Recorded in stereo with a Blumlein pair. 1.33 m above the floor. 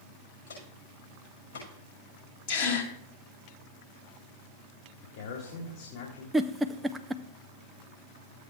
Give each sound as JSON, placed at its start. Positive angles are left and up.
{"t": 0.5, "sound": "footsteps", "azimuth_deg": 70, "distance_m": 6.0}
{"t": 2.5, "sound": "a gasp", "azimuth_deg": 50, "distance_m": 2.0}
{"t": 5.0, "sound": "a man speaking", "azimuth_deg": 50, "distance_m": 2.0}
{"t": 6.3, "sound": "a giggle", "azimuth_deg": -10, "distance_m": 0.5}